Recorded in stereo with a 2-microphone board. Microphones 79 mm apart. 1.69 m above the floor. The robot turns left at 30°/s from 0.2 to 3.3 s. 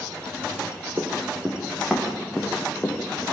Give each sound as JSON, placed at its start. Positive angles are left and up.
{"t": 1.0, "sound": "running footsteps", "side_deg": -35, "distance_m": 5.5}